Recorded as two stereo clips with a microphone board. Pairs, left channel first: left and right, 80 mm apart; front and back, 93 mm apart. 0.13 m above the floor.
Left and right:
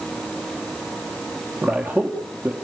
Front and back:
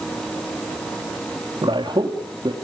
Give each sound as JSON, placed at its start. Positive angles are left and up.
{"t": 1.6, "sound": "a man speaking", "azimuth_deg": -170, "distance_m": 2.5}